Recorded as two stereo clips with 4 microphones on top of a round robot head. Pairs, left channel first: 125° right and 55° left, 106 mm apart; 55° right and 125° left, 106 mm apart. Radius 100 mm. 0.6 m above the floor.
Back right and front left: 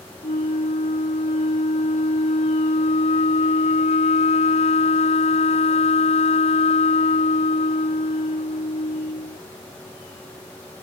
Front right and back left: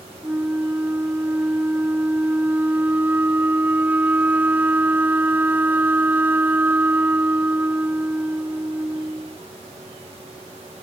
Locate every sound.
0.2 s a flute: 160° right